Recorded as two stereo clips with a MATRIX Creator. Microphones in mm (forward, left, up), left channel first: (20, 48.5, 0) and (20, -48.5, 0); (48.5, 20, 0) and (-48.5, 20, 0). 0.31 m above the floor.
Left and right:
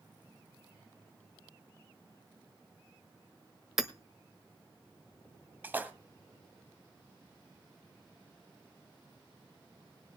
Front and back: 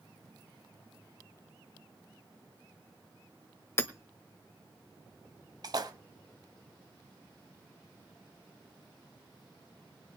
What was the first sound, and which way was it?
Hammering, 10° right.